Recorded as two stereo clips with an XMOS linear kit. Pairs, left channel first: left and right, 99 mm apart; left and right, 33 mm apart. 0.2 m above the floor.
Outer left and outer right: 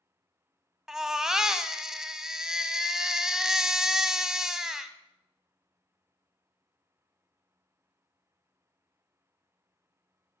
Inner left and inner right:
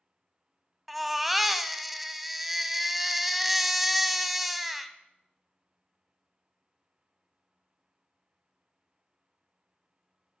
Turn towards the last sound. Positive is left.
turn(degrees=-5)  # may be behind; listen again after turning